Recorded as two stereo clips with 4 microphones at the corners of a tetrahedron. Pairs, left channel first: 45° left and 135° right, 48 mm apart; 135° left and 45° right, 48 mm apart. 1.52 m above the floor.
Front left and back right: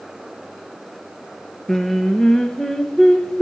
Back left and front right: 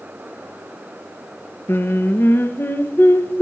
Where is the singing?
120° left, 0.8 m.